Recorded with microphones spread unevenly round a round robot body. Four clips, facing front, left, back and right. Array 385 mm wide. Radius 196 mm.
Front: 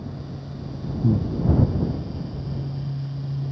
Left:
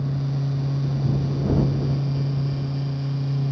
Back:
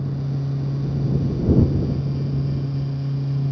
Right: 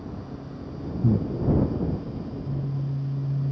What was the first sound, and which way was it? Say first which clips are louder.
Breathing: right 5 dB, front 3 dB; 30° right.